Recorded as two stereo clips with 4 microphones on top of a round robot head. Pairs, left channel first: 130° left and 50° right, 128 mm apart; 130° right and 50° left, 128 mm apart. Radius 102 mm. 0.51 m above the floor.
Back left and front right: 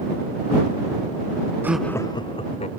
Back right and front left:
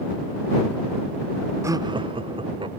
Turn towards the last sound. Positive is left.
turn(degrees=100)